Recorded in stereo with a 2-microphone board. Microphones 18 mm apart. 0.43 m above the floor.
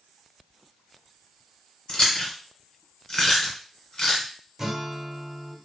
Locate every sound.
1.9 s chewing: 45° left (ahead or behind), 1.2 m
4.6 s a guitar: 30° right (ahead or behind), 0.8 m